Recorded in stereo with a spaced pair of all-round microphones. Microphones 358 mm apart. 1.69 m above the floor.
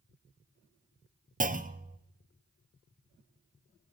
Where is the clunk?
25° right (ahead or behind), 0.5 m.